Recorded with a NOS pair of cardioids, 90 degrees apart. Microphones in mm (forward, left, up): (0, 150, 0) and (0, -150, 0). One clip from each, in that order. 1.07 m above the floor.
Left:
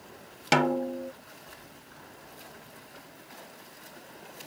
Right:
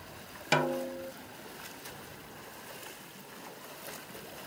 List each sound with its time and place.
0.5 s a snare drum: 30° left